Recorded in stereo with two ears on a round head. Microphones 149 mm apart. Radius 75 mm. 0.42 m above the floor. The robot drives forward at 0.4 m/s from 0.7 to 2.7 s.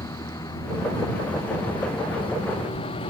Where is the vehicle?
20° left (ahead or behind); by 3.1 s 30° left (ahead or behind).